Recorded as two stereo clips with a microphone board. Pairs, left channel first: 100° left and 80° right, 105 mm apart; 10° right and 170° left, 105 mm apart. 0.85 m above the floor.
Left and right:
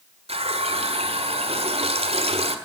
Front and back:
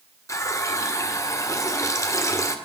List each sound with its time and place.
0.3 s a running tap: 70° right, 1.6 m